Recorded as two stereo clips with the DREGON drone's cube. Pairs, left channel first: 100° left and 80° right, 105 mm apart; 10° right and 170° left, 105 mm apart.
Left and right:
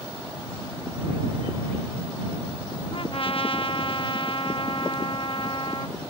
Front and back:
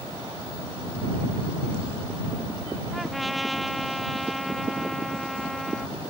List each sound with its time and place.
2.9 s a trumpet: 80° left